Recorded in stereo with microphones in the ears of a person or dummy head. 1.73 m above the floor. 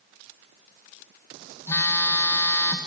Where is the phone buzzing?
15° left (ahead or behind), 0.8 m.